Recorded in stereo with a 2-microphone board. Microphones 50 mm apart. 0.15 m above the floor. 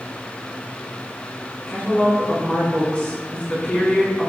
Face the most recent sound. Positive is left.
turn(degrees=25)  # may be behind; listen again after turning